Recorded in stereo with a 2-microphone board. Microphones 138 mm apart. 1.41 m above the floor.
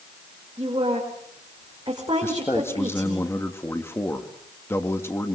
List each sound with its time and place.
0.6 s a woman speaking: 35° right (ahead or behind), 5 m
2.2 s a man speaking: 20° left (ahead or behind), 2.5 m